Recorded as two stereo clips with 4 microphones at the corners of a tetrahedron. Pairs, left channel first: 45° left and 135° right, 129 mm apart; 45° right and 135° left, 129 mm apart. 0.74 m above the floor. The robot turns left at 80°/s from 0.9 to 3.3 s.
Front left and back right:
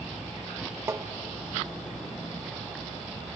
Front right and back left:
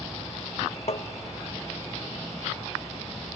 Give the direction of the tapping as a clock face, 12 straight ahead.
2 o'clock.